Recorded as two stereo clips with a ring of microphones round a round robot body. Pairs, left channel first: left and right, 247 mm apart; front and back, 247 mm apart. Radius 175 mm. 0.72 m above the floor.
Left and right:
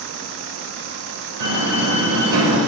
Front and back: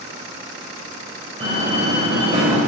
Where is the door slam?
105° right, 2.5 m.